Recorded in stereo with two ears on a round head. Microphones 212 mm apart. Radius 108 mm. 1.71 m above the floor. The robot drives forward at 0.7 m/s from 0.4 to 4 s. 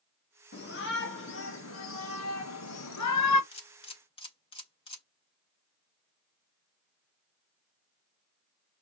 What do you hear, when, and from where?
0.5 s a shout: 45° left (ahead or behind), 3.5 m; by 3.4 s 80° left, 2.5 m
3.5 s a camera shutter: 25° left (ahead or behind), 4 m